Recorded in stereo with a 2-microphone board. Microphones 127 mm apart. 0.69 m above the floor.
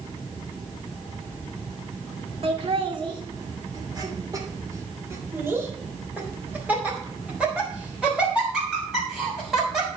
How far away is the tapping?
I don't hear tapping.